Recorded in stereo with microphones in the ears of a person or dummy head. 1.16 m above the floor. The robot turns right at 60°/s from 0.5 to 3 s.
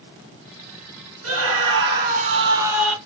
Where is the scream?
100° right, 1.4 m; by 3.0 s straight ahead, 1.4 m.